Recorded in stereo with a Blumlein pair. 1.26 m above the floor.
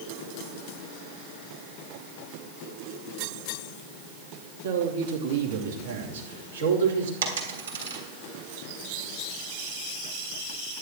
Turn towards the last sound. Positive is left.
turn(degrees=-65)